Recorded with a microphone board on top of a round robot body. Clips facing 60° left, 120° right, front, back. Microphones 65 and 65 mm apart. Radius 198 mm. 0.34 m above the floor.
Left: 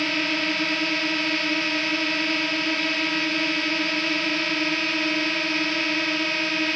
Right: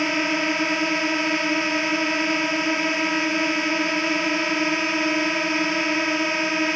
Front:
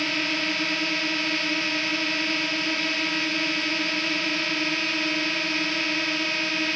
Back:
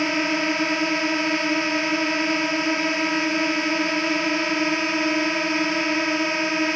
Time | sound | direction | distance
0.0 | a drone | 160° right | ?